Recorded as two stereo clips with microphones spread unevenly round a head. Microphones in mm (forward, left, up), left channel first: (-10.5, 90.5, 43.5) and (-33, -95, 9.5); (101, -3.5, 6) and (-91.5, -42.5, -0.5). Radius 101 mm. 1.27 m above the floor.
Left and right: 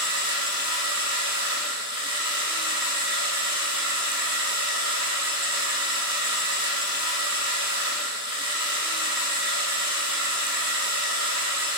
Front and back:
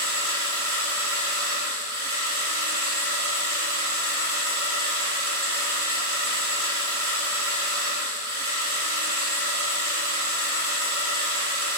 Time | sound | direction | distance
0.0 | a machine running | 175° right | 1.8 m